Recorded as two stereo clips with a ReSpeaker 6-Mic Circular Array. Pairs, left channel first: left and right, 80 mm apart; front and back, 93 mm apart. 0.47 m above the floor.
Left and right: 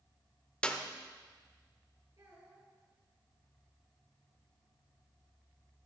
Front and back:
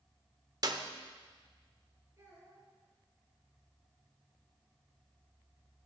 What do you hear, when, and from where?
0.6 s a clap: 160° left, 0.8 m
2.2 s a child speaking: 130° right, 5.5 m